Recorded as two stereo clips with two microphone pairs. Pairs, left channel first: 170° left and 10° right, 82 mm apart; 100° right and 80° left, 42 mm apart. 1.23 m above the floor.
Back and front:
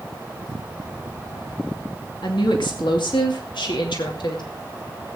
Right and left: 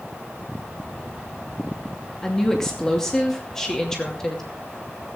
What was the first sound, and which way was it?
A woman speaking, 175° right.